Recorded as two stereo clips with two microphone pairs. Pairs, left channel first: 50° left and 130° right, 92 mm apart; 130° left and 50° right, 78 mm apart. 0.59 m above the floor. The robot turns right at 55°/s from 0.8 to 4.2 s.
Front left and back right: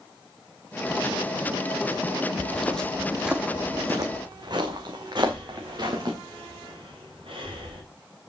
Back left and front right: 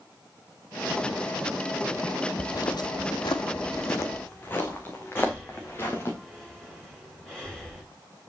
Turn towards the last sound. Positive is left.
turn(degrees=-155)